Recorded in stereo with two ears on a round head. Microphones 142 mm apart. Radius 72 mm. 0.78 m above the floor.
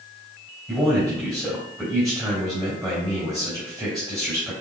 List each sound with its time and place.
0.7 s a man speaking: centre (ahead or behind), 3.5 m